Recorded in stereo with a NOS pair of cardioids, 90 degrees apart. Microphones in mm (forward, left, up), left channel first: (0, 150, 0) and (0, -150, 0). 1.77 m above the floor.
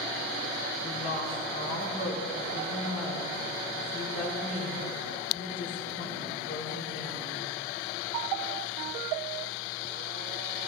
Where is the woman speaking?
40° left, 5 m.